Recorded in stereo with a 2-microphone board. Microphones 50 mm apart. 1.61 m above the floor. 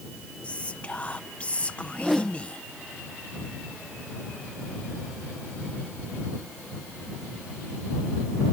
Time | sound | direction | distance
0.4 | whispering | 25° left (ahead or behind) | ?
1.9 | a whoosh | 5° left (ahead or behind) | ?